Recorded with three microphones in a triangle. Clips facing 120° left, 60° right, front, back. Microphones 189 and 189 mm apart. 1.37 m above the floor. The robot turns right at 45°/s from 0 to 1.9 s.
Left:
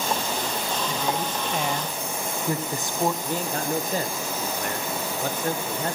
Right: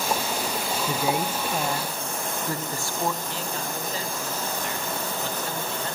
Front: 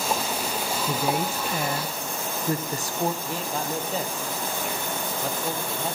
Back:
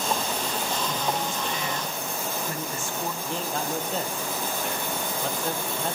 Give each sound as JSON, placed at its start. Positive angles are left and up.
{"t": 0.9, "sound": "a woman speaking", "azimuth_deg": 0, "distance_m": 0.5}
{"t": 3.2, "sound": "a man speaking", "azimuth_deg": 85, "distance_m": 0.9}